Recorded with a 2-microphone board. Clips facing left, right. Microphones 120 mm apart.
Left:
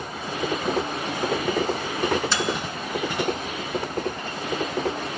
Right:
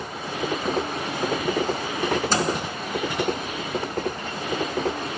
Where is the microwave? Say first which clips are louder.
Right 2 dB; 40° right (ahead or behind), 1.2 m.